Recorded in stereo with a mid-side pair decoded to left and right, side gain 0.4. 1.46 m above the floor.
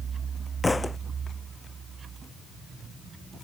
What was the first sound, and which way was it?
A thud, 20° left.